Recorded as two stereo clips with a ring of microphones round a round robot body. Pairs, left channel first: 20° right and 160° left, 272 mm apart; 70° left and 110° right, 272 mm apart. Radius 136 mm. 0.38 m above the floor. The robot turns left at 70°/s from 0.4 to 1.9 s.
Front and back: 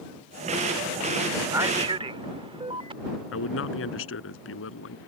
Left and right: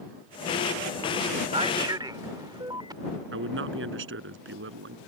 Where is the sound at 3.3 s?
65° right.